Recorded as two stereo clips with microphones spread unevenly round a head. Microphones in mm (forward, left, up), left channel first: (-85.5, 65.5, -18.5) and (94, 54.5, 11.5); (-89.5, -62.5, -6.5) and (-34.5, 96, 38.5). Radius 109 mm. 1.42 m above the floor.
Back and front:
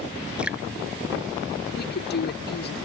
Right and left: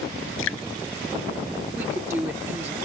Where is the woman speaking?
150° left.